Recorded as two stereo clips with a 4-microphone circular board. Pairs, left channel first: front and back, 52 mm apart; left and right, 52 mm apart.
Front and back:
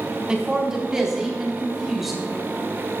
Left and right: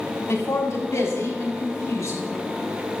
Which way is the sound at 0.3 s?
110° left.